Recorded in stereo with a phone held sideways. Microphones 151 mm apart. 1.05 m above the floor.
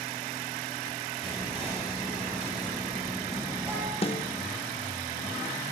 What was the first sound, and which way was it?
Whispering, 40° right (ahead or behind).